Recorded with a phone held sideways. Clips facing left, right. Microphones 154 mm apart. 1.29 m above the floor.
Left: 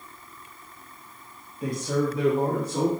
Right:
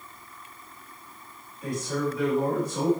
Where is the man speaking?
75° left (ahead or behind), 2 m; by 2.9 s 80° left, 3 m.